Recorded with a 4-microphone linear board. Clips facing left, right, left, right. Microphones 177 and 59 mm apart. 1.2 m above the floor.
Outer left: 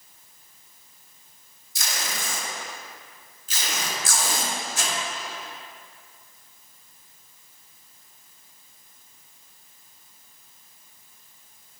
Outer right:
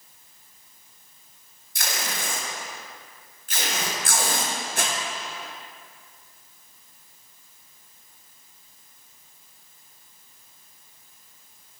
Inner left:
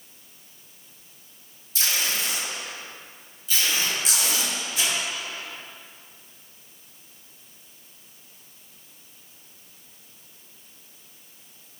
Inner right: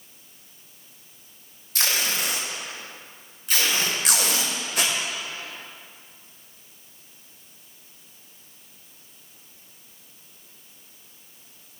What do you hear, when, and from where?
1.8 s tape being pulled: 65° right (ahead or behind), 0.9 m